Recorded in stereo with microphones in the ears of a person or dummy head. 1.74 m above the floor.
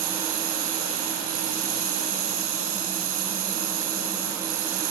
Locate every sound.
0.0 s running water: 40° right (ahead or behind), 6 m